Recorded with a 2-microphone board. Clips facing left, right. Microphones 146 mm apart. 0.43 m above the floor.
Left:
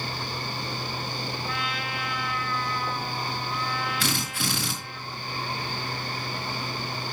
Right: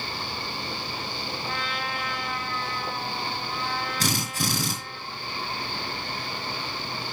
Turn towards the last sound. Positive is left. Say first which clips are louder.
# right 2 dB
turn(degrees=-40)  # may be behind; listen again after turning